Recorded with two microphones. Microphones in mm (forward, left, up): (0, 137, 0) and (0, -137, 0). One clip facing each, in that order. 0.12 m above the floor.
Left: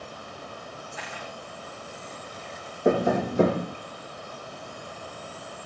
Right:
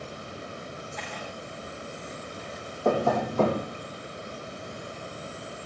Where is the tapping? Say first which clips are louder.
Left 2 dB; 20° left (ahead or behind), 5 m.